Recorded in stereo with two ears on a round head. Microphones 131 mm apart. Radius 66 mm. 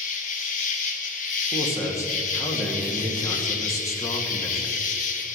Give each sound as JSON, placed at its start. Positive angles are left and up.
{"t": 0.0, "sound": "an insect", "side_deg": 60, "distance_m": 1.2}
{"t": 1.5, "sound": "a man speaking", "side_deg": 25, "distance_m": 2.0}